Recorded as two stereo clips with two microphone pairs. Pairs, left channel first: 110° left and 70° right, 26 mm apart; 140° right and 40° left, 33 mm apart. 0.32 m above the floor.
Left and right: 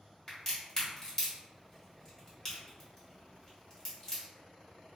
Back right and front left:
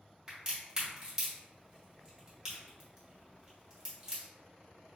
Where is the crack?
85° left, 1.5 m.